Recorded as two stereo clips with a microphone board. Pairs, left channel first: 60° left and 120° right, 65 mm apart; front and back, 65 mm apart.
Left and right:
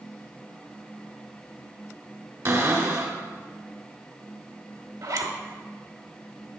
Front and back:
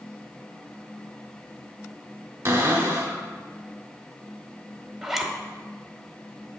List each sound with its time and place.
2.5 s a cupboard door: 145° right, 1.1 m
5.0 s a zipper: 95° right, 0.7 m